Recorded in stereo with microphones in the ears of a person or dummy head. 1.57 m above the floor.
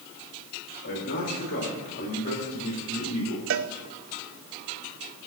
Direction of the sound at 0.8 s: 50° left (ahead or behind).